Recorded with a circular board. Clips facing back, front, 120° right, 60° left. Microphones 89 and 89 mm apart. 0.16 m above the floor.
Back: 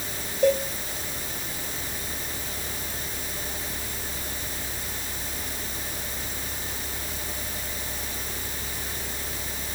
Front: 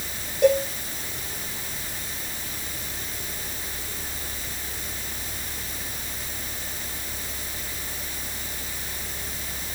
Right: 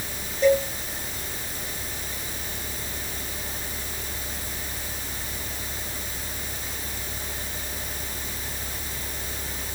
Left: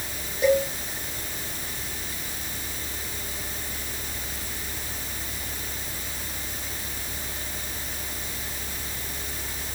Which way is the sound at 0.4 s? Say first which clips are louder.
Front 3 dB, right 1 dB; 20° right.